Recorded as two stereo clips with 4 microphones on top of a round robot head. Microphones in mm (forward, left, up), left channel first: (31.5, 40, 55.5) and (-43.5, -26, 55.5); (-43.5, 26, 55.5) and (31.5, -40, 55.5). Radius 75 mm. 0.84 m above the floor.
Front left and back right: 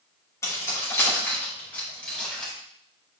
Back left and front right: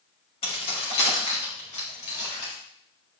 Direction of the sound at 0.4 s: 105° left.